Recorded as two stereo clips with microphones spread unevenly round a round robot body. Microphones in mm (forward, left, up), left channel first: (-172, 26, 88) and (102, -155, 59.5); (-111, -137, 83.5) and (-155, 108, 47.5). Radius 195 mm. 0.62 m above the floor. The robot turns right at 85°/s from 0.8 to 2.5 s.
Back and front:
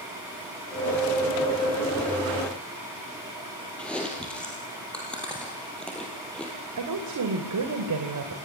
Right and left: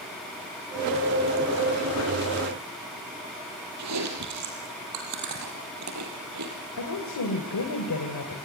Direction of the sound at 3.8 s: 60° left.